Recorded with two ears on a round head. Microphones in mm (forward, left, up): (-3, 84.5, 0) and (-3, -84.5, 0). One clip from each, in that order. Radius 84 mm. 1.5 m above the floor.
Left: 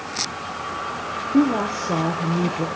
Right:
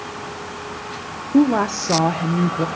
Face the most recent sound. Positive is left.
turn(degrees=-50)  # may be behind; listen again after turning